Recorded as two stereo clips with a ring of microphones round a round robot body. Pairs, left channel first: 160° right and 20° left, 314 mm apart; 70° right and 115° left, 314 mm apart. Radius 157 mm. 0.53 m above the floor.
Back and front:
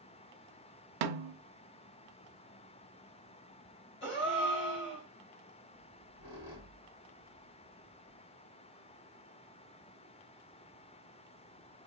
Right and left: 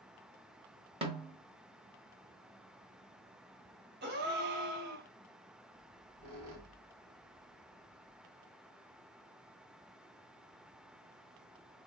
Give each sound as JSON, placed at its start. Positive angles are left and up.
{"t": 1.0, "sound": "a snare drum", "azimuth_deg": 40, "distance_m": 0.6}
{"t": 4.0, "sound": "a gasp", "azimuth_deg": 160, "distance_m": 1.2}
{"t": 5.7, "sound": "a squeak", "azimuth_deg": 155, "distance_m": 1.6}